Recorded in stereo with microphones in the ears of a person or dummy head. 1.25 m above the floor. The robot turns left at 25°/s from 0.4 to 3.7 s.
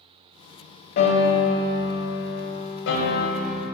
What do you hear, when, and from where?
1.0 s a piano: 120° left, 1.6 m; by 3.6 s 55° left, 1.6 m